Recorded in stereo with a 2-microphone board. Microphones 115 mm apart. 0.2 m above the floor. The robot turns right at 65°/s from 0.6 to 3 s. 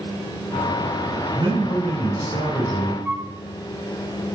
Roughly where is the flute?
Centre.